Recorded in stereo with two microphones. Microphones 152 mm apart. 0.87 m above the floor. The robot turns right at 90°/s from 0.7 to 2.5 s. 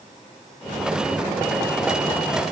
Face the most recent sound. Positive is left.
No sound to turn to.